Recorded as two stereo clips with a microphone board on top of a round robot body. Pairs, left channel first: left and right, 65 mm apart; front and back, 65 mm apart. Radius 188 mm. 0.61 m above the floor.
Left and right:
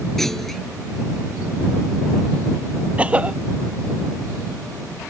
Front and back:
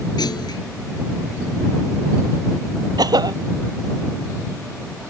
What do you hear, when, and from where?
0.2 s a clunk: 5° left
3.0 s a cough: 160° right